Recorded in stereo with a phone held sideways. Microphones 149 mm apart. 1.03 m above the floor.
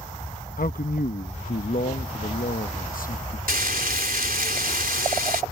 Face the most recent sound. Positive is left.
turn(degrees=-75)  # may be behind; listen again after turning